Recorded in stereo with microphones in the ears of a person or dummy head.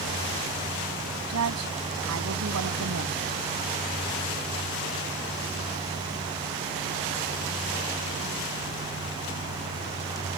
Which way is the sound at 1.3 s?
80° right.